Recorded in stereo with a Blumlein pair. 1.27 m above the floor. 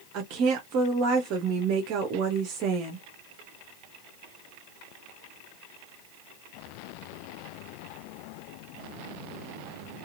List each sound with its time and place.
0.1 s a woman speaking: 40° right, 0.6 m